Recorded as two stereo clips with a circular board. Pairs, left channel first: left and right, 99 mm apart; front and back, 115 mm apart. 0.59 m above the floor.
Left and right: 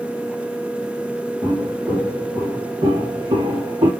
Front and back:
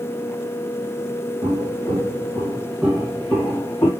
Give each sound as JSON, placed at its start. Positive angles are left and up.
{"t": 1.4, "sound": "footsteps", "azimuth_deg": -130, "distance_m": 1.7}